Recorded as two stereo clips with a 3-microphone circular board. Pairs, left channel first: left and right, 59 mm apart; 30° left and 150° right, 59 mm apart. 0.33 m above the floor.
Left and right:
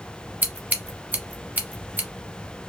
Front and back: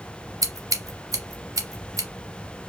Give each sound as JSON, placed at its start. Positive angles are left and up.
{"t": 0.4, "sound": "scissors", "azimuth_deg": -150, "distance_m": 0.9}